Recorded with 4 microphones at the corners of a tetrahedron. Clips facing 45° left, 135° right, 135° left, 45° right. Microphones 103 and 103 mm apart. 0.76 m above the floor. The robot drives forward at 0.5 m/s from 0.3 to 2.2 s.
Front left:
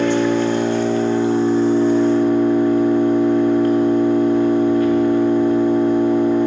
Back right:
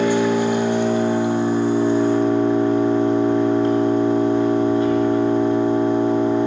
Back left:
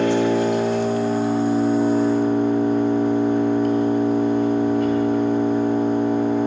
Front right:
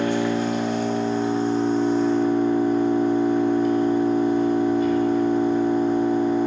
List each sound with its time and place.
0.0 s an engine running: 145° left, 1.0 m; by 6.5 s 160° left, 1.8 m